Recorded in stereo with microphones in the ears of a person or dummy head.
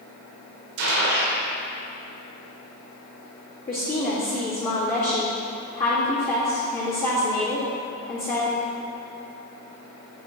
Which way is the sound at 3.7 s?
45° left (ahead or behind).